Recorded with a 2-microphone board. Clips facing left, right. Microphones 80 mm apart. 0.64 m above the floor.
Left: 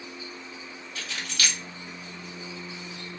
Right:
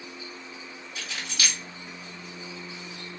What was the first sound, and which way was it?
Keys jangling, 20° right (ahead or behind).